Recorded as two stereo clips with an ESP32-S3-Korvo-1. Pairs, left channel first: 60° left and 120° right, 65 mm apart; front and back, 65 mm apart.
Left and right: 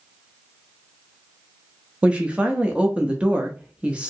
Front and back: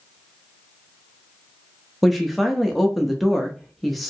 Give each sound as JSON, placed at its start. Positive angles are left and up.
{"t": 2.0, "sound": "a woman speaking", "azimuth_deg": -90, "distance_m": 0.5}